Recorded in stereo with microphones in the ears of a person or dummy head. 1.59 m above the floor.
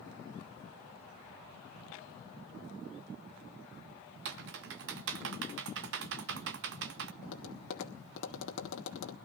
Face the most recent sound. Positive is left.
turn(degrees=75)  # may be behind; listen again after turning